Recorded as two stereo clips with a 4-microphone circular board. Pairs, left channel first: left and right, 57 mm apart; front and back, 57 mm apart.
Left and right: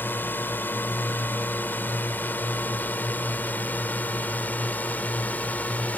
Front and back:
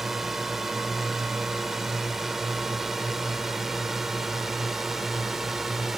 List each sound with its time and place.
0.0 s a drone: 95° left; by 6.0 s 100° left